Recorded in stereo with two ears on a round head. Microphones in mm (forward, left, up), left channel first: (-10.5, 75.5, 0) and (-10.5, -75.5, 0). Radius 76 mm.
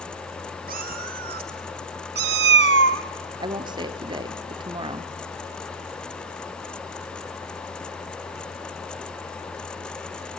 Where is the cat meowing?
55° right (ahead or behind), 3 m; by 3.0 s 80° right, 0.9 m.